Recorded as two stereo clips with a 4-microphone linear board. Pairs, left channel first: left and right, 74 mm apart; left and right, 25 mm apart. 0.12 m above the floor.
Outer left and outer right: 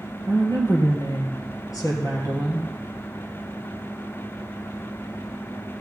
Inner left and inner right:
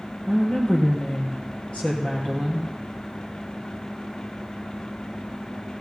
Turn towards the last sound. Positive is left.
turn(degrees=55)  # may be behind; listen again after turning